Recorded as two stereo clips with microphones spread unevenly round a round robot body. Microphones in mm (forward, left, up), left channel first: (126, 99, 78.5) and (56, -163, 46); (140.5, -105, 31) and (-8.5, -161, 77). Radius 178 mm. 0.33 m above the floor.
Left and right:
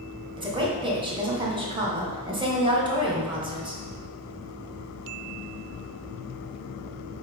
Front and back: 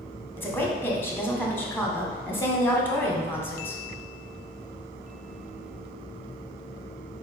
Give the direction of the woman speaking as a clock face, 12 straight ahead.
1 o'clock.